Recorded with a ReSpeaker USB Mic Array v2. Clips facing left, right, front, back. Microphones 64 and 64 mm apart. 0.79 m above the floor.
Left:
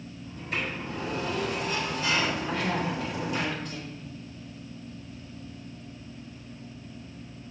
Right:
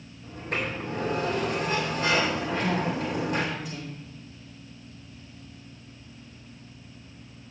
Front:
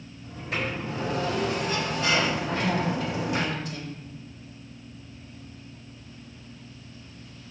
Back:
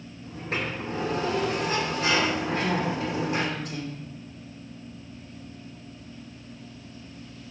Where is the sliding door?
135° right, 1.9 m.